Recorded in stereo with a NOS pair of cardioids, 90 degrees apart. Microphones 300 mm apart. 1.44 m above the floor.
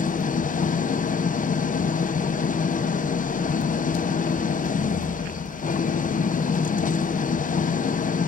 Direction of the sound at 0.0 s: 30° left.